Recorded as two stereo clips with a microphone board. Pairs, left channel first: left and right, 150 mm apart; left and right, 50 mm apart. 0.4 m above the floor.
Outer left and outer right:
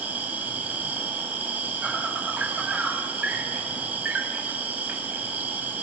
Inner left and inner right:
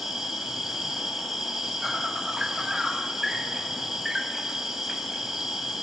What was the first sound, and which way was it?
An insect, 10° right (ahead or behind).